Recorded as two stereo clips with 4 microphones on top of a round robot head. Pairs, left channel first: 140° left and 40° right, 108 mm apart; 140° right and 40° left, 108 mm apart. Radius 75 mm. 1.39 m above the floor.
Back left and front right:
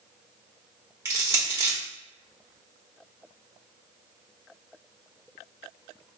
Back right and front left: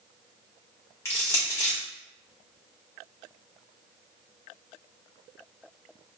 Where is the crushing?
85° right, 0.9 m.